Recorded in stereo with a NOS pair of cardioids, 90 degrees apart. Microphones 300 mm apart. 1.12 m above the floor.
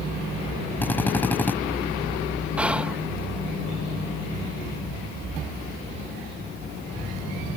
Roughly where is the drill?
Ahead.